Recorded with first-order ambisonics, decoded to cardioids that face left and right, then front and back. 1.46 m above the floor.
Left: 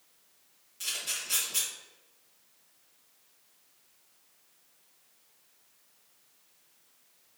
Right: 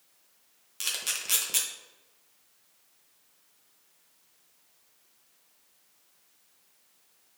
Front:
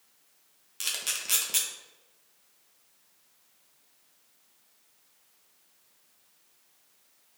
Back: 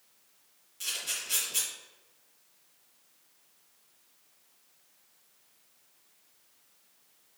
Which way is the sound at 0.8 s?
45° right.